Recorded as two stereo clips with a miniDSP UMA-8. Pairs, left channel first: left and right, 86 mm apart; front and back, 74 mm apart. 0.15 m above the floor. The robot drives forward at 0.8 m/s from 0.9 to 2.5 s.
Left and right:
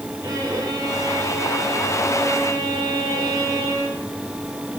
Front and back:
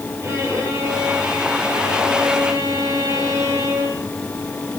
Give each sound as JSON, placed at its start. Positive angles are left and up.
{"t": 0.2, "sound": "a violin", "azimuth_deg": -130, "distance_m": 8.5}